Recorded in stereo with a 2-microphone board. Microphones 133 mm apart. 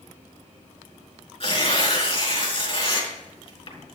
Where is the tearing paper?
40° left (ahead or behind), 3.5 m.